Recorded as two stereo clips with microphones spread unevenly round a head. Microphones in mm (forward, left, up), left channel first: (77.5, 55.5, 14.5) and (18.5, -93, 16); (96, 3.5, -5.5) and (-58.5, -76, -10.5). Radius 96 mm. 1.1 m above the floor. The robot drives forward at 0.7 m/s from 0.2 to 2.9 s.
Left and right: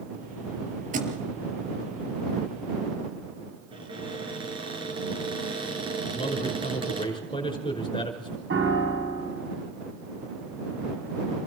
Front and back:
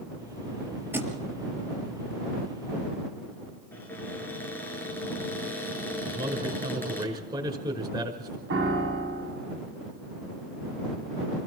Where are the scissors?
I don't hear scissors.